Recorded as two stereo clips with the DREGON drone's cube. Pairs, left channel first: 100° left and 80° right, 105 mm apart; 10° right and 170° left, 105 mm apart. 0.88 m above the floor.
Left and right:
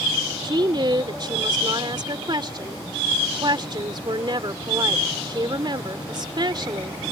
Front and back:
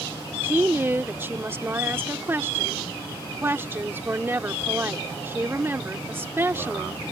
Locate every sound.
0.4 s a woman speaking: 120° right